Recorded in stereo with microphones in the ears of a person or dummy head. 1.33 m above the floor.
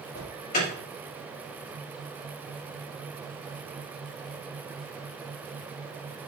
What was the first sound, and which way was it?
An alarm, 45° left (ahead or behind).